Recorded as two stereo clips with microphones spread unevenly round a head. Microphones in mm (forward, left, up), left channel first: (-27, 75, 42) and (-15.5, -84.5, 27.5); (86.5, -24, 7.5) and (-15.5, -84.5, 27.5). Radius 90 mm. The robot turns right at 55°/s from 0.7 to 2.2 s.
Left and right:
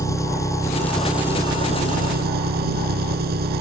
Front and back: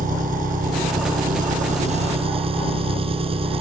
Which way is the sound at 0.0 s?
165° left.